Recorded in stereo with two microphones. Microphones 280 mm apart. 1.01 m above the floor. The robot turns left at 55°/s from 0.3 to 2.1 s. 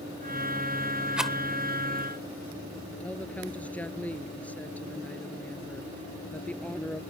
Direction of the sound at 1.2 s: 5° right (ahead or behind).